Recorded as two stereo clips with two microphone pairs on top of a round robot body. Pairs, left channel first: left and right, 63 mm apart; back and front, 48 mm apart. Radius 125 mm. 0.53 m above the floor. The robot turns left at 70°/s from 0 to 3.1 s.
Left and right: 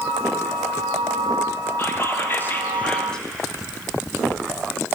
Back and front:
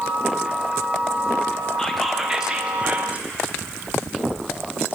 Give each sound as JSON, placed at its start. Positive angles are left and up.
{"t": 1.8, "sound": "whispering", "azimuth_deg": 105, "distance_m": 0.7}